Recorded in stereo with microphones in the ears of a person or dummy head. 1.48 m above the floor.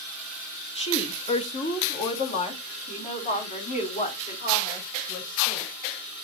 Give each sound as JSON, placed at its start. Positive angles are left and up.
{"t": 0.8, "sound": "a woman speaking", "side_deg": 25, "distance_m": 1.4}